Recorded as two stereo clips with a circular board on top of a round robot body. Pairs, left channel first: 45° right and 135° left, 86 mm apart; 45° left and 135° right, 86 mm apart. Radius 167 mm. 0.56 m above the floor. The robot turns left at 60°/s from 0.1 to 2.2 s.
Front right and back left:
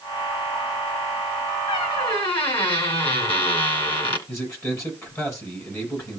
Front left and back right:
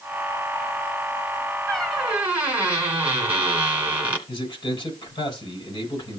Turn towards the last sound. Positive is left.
turn(degrees=15)